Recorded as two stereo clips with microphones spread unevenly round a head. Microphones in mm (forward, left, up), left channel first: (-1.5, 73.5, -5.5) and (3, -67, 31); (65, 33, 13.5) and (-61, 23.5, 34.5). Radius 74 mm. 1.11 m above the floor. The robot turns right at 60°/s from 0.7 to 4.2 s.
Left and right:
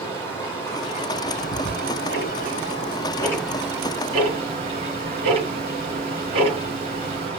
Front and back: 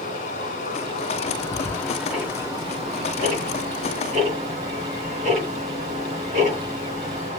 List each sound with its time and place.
0.0 s running water: 20° left, 2.5 m; by 7.4 s 130° right, 2.5 m
1.4 s ticking: 50° left, 3 m; by 7.3 s 140° right, 3 m